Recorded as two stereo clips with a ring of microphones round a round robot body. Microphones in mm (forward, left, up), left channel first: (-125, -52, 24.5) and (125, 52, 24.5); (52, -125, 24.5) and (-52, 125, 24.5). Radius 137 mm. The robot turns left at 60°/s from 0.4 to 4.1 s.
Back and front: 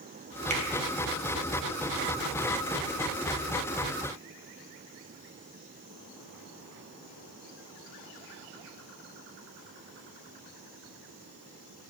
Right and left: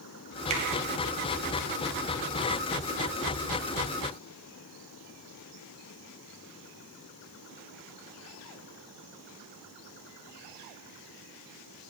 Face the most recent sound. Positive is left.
turn(degrees=-130)